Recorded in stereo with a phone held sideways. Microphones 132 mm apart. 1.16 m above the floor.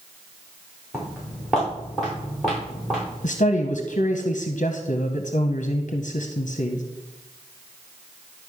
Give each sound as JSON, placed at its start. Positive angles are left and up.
{"t": 0.9, "sound": "footsteps", "side_deg": 0, "distance_m": 4.5}
{"t": 3.2, "sound": "a man speaking", "side_deg": 65, "distance_m": 0.7}